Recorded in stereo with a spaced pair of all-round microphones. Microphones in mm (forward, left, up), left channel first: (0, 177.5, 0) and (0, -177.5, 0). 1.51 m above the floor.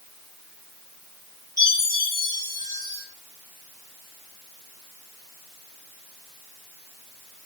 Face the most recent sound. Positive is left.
turn(degrees=-10)  # may be behind; listen again after turning